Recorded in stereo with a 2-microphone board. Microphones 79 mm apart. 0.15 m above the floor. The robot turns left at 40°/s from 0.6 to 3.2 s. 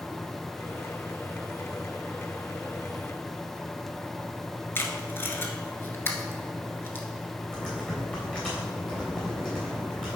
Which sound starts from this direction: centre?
Typing on a keyboard, at 7.5 s.